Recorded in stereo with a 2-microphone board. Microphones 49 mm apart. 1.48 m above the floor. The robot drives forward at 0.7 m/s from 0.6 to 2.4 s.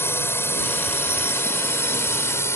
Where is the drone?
55° left (ahead or behind); by 2.6 s 65° left (ahead or behind).